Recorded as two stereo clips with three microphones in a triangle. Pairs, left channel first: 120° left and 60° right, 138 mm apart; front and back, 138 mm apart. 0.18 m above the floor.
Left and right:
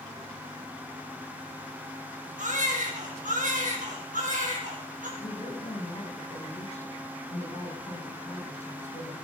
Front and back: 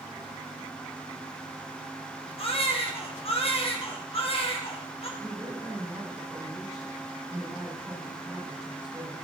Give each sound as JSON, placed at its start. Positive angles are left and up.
{"t": 2.4, "sound": "a baby crying", "azimuth_deg": -45, "distance_m": 3.5}
{"t": 5.2, "sound": "a woman speaking", "azimuth_deg": 100, "distance_m": 7.0}